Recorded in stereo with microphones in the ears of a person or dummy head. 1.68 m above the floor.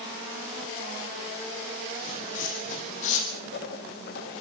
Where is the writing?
55° left (ahead or behind), 4.5 m.